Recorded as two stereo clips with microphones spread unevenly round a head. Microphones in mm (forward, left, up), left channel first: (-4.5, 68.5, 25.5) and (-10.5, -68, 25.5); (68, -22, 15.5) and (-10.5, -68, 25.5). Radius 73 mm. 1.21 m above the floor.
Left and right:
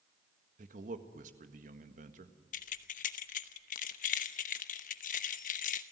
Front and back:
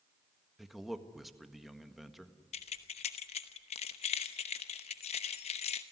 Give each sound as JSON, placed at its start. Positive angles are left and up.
{"t": 0.6, "sound": "a man speaking", "azimuth_deg": -60, "distance_m": 1.7}
{"t": 2.5, "sound": "keys jangling", "azimuth_deg": 55, "distance_m": 0.9}